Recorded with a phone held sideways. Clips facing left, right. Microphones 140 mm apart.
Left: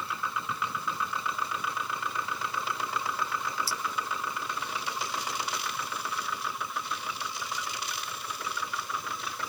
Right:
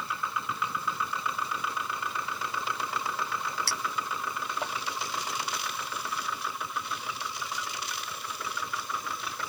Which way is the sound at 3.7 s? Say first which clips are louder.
Even; 70° right (ahead or behind).